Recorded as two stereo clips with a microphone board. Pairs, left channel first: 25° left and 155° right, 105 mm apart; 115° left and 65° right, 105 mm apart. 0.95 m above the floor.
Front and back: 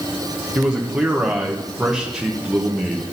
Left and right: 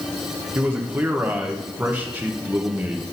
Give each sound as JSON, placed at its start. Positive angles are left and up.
{"t": 0.6, "sound": "a man speaking", "azimuth_deg": -85, "distance_m": 0.9}